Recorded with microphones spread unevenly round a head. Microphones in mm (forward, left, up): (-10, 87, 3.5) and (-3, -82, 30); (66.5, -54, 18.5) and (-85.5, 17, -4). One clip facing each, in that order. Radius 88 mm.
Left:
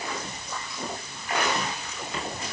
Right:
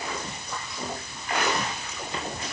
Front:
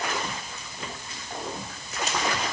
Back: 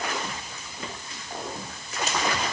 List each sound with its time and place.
Only background noise.